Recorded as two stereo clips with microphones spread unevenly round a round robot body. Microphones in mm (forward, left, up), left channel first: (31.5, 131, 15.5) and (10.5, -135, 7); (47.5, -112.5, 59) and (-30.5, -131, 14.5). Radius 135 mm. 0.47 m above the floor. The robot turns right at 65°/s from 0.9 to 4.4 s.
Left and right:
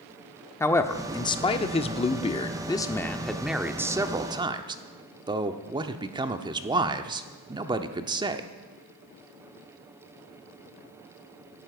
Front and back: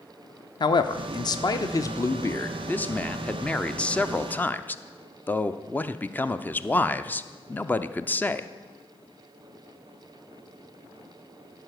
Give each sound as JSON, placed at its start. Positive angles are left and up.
{"t": 0.6, "sound": "a man speaking", "azimuth_deg": 20, "distance_m": 0.7}